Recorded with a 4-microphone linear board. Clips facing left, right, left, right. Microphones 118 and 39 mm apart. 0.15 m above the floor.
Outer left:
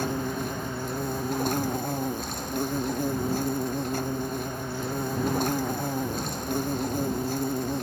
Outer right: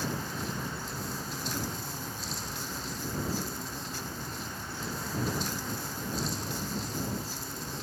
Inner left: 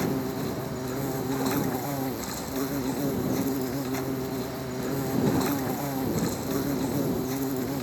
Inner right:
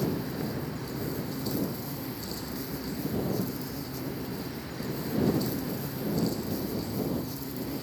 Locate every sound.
0.0 s an insect: 60° left (ahead or behind)